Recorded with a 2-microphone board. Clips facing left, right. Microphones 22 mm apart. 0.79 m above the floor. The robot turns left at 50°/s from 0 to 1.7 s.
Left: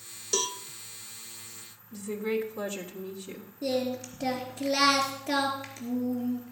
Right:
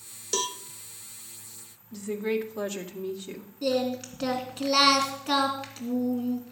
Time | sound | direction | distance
0.3 | a cowbell | 5° right (ahead or behind) | 0.5 m
1.9 | a woman speaking | 40° right (ahead or behind) | 1.8 m
3.6 | singing | 70° right (ahead or behind) | 2.5 m